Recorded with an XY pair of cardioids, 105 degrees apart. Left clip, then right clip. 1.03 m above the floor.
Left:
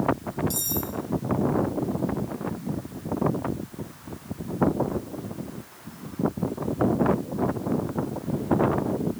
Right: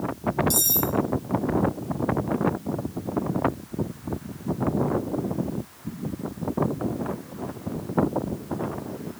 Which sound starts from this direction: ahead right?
Cutlery clinking, at 0.5 s.